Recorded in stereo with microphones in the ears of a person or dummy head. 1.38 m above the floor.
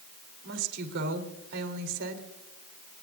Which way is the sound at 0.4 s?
65° right (ahead or behind).